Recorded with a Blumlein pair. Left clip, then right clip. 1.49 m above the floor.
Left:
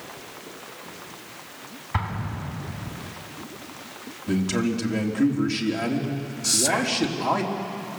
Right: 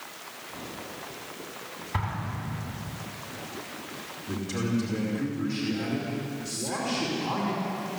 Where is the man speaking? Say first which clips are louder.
Left 6 dB; 35° left, 3.5 m.